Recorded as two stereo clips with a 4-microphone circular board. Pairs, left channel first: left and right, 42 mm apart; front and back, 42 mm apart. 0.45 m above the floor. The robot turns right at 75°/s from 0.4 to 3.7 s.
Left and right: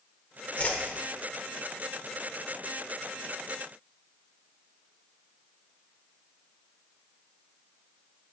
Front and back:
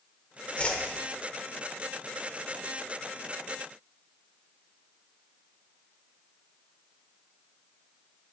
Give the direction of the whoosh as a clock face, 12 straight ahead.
10 o'clock.